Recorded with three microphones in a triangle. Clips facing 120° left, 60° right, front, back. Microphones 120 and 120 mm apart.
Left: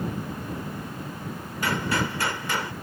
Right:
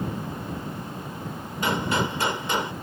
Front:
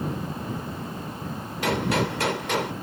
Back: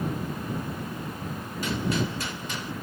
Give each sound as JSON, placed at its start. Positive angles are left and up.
{"t": 1.6, "sound": "a gunshot", "azimuth_deg": 10}